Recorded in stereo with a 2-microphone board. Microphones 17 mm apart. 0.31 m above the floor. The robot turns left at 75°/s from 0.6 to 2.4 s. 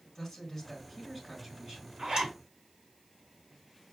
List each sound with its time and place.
0.1 s a man speaking: 40° left, 4 m; by 1.9 s 60° right, 4 m
2.0 s a zipper: 65° right (ahead or behind), 3.5 m; by 2.3 s 60° right (ahead or behind), 3.5 m